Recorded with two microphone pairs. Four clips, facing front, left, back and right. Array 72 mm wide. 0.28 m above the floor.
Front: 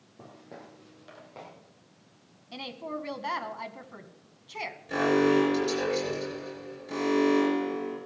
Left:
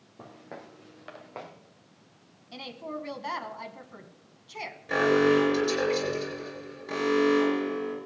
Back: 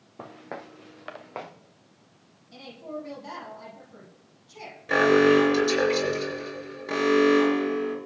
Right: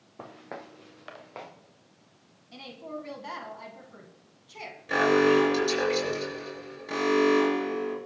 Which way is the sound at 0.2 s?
145° right.